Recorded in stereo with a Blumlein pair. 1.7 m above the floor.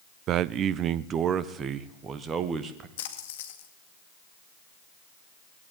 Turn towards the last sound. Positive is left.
turn(degrees=55)